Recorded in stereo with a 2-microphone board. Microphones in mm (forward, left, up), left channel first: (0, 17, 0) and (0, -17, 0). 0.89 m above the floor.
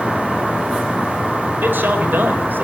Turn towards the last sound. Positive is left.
turn(degrees=-75)  # may be behind; listen again after turning